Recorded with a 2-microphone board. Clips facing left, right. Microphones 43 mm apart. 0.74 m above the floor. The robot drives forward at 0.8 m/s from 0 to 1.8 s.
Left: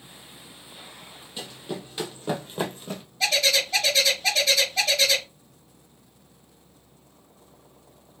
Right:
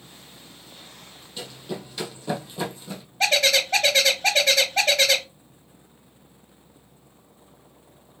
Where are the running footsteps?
10° left (ahead or behind), 1.6 m; by 3.0 s 45° left (ahead or behind), 1.6 m.